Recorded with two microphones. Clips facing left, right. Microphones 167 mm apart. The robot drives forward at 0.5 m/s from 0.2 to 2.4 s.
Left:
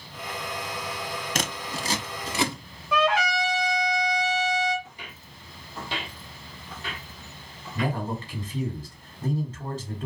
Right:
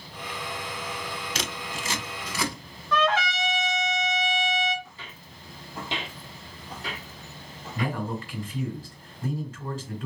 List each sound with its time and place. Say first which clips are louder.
1.4 s scissors: left 3 dB; 50° left (ahead or behind), 0.5 m; by 2.6 s 25° left (ahead or behind), 0.9 m
2.9 s a trumpet: left 1 dB; 10° left (ahead or behind), 1.2 m
4.8 s footsteps: left 1 dB; 20° left (ahead or behind), 0.7 m; by 8.0 s 50° right (ahead or behind), 1.8 m
7.8 s a man speaking: left 1 dB; 25° left (ahead or behind), 1.9 m